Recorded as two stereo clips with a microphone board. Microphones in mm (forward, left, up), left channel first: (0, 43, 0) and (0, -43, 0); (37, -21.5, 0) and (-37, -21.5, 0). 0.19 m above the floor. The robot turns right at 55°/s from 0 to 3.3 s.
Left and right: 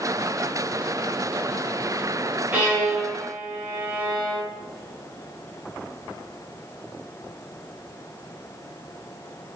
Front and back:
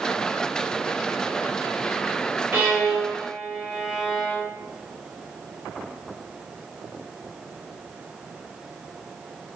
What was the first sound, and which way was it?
A violin, 145° right.